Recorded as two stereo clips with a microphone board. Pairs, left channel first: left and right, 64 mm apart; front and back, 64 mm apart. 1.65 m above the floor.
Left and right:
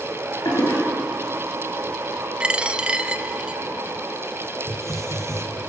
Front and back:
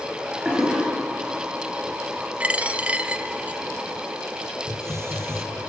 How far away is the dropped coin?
About 1.1 m.